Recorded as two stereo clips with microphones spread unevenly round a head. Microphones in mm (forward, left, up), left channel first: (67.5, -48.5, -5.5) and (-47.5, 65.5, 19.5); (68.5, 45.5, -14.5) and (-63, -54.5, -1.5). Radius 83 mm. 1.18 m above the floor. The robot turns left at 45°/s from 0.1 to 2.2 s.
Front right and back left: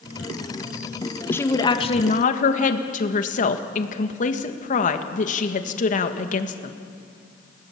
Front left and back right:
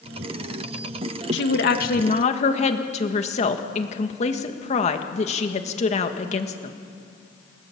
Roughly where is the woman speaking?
Ahead left.